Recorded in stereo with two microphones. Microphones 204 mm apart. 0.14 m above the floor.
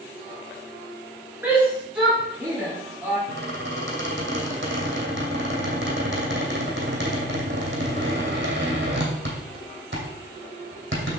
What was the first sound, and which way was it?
A shout, 10° right (ahead or behind).